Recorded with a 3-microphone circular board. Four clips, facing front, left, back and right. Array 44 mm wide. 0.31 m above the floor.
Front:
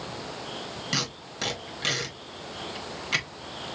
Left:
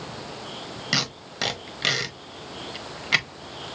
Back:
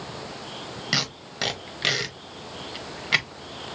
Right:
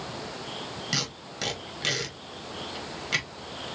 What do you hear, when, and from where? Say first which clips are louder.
0.9 s tape being pulled: left 7 dB, back 4 dB; 135° left, 1.1 m